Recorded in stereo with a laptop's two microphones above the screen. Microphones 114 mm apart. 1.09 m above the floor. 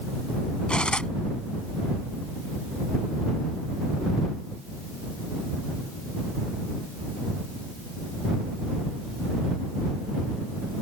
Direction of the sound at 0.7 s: 10° left (ahead or behind).